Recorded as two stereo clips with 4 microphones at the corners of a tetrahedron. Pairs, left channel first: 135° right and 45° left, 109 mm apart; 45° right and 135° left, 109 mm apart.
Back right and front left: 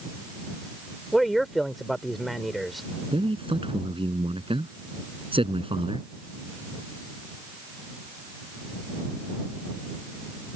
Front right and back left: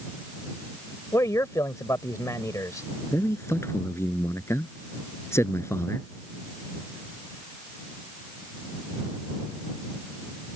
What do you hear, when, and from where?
1.1 s a man speaking: 45° right
3.1 s a man speaking: 20° left